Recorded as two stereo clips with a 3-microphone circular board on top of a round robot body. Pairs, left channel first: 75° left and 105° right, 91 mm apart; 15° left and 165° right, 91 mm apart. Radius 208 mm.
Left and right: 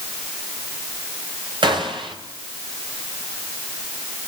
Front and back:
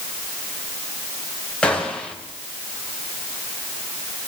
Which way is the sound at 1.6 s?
65° right.